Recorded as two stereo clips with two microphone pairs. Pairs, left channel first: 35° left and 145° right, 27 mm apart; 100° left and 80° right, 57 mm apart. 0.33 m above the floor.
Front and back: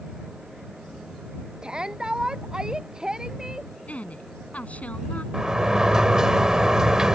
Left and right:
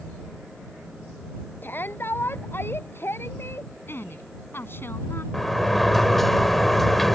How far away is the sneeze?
I don't hear a sneeze.